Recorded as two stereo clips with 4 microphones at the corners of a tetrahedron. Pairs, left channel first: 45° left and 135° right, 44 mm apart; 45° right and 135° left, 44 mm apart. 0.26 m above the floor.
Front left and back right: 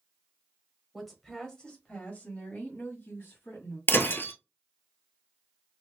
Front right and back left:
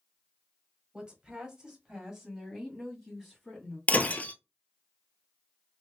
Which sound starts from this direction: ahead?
Breaking glass, at 3.9 s.